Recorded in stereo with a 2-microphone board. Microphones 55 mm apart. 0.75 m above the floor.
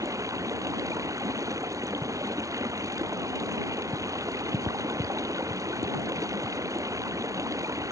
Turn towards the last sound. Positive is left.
turn(degrees=-85)